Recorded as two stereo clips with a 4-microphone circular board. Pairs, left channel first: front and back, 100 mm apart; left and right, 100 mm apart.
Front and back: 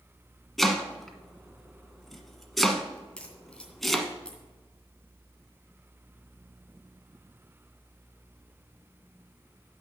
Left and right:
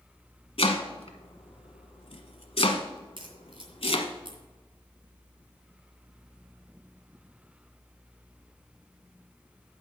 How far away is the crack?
About 2 m.